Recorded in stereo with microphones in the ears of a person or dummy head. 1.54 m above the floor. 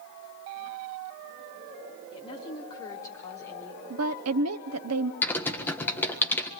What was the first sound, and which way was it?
A woman speaking, 25° left (ahead or behind).